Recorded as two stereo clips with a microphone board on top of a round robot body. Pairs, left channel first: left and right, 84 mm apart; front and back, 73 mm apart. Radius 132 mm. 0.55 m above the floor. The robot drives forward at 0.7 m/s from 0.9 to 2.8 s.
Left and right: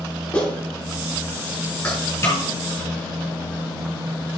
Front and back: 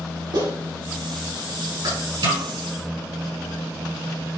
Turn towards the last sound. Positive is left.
turn(degrees=155)